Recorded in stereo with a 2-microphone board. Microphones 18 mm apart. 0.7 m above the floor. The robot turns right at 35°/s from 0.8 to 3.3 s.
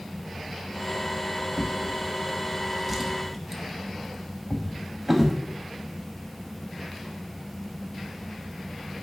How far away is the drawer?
About 0.7 m.